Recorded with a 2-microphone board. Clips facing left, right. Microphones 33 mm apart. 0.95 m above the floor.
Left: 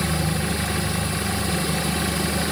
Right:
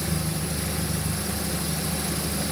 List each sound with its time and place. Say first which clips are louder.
0.0 s an engine running: left 5 dB; 55° left (ahead or behind), 0.8 m